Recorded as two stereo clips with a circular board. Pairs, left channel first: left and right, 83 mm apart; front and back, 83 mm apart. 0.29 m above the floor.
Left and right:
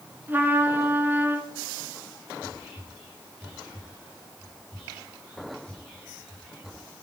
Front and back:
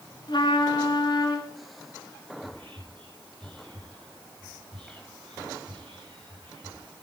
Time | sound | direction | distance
0.3 | a trumpet | 25° right | 1.5 m
2.4 | whispering | 175° left | 4 m